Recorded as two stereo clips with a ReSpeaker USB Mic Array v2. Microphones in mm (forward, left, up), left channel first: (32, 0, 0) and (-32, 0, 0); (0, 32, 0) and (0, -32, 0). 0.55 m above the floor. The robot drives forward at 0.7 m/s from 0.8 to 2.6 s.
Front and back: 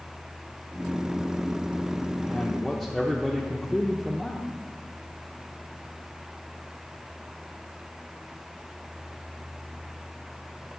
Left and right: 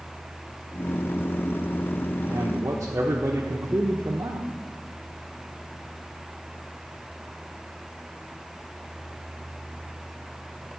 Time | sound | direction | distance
2.3 | a man speaking | 60° right | 1.0 m